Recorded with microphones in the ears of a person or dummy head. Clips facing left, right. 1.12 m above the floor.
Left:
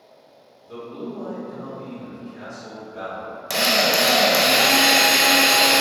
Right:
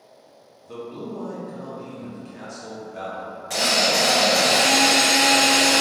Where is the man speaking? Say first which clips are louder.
Left 1 dB; 70° right (ahead or behind), 1.0 m.